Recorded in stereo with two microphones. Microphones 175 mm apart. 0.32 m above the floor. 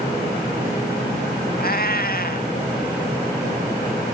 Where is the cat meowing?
60° left (ahead or behind), 0.9 m.